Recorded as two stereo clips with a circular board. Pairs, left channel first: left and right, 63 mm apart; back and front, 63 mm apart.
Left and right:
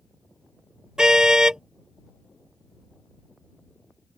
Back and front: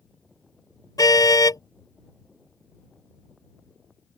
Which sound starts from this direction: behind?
A car horn, at 1.0 s.